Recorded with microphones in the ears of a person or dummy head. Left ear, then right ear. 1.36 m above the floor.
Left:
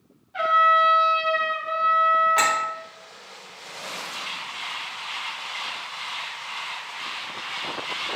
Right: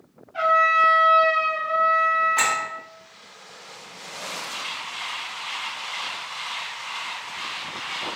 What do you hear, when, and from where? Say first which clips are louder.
0.3 s a trumpet: even; 10° left (ahead or behind), 0.8 m
2.4 s a clink: left 1 dB; 30° left (ahead or behind), 1.0 m